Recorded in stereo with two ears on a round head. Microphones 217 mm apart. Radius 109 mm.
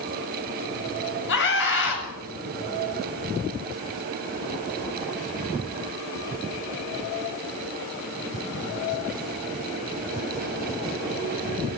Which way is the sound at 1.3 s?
50° left (ahead or behind).